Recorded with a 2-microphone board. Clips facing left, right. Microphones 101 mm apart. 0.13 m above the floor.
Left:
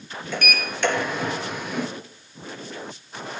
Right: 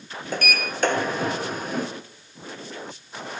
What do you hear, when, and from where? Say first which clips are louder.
0.3 s a sliding door: right 1 dB; 45° right (ahead or behind), 1.5 m